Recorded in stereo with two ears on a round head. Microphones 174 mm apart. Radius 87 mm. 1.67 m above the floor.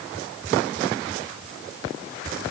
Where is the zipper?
No zipper in this recording.